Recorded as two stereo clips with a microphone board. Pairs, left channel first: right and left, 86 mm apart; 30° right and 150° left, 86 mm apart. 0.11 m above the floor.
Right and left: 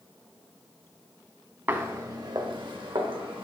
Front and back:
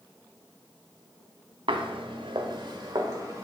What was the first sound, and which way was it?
Footsteps, 150° left.